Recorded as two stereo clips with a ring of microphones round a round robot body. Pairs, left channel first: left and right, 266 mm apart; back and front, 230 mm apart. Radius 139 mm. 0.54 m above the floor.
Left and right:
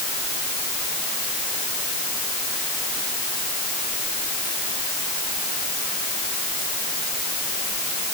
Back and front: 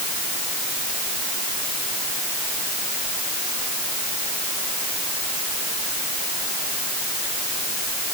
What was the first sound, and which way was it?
Only background noise.